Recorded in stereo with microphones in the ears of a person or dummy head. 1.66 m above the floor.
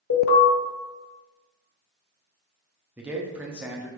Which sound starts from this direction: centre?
A man speaking, at 3.0 s.